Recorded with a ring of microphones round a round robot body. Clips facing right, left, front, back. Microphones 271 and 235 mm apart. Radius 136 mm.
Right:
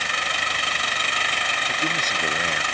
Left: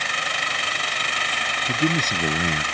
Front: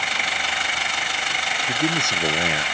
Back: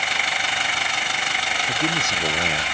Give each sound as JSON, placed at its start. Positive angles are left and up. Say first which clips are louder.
{"t": 1.7, "sound": "a man speaking", "louder": "left 9 dB, front 3 dB", "azimuth_deg": 80}